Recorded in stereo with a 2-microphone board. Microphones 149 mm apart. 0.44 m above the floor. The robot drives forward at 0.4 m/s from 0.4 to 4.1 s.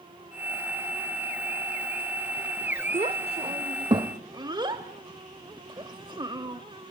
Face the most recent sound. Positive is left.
turn(degrees=-30)  # may be behind; listen again after turning